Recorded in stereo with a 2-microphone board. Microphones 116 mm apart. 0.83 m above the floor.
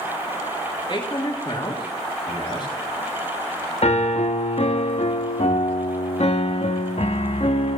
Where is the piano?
65° left (ahead or behind), 0.6 m.